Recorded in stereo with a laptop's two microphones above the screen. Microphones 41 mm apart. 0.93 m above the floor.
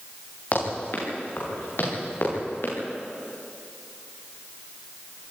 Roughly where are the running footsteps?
Left.